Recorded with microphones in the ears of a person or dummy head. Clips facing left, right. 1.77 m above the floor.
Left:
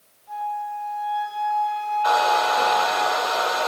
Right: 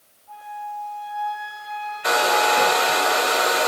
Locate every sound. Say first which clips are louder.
0.3 s a flute: left 5 dB; 75° left (ahead or behind), 6 m
2.0 s a hair dryer: right 1 dB; 30° right (ahead or behind), 0.8 m